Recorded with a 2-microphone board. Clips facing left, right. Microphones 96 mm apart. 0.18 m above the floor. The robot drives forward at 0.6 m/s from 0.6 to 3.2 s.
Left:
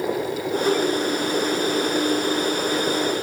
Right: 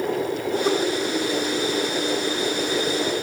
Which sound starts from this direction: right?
Laughter, at 0.6 s.